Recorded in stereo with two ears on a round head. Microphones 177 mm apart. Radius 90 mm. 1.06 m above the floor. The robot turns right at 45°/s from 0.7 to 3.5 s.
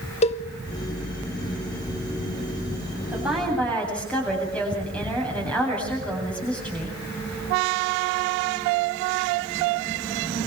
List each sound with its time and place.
0.2 s a cowbell: 35° left (ahead or behind), 1.2 m
3.1 s a woman speaking: 10° right (ahead or behind), 8.5 m; by 7.0 s 5° left (ahead or behind), 8.5 m